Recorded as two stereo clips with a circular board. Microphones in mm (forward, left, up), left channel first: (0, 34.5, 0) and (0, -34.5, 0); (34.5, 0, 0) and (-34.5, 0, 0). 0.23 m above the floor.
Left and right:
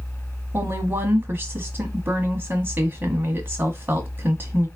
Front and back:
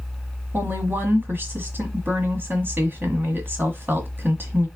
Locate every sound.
0.5 s a woman speaking: 135° right, 1.4 m